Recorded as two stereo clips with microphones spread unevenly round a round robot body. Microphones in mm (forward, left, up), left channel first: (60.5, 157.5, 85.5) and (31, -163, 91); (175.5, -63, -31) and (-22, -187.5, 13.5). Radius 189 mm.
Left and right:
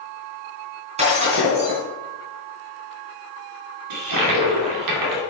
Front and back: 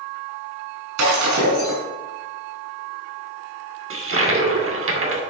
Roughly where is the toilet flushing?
Right.